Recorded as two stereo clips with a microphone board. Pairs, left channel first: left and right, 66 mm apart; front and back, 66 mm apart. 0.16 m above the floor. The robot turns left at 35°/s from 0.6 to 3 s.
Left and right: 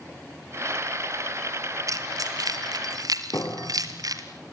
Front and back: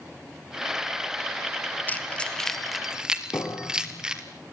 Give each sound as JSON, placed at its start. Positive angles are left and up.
{"t": 1.9, "sound": "keys jangling", "azimuth_deg": -60, "distance_m": 2.5}
{"t": 3.3, "sound": "a piano", "azimuth_deg": 45, "distance_m": 3.5}